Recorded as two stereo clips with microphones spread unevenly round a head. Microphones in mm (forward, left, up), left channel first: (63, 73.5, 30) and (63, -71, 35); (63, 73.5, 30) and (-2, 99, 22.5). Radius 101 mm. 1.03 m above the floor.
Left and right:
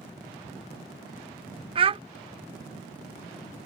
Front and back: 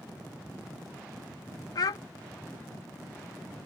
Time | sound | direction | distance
1.8 | a child speaking | 45° right | ?